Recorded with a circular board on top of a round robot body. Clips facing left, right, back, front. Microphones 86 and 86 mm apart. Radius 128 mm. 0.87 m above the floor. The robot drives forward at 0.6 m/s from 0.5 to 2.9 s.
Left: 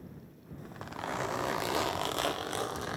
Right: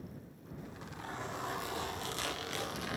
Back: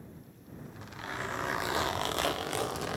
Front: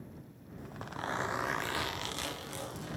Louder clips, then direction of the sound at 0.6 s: Left 6 dB, front 4 dB; 35° left.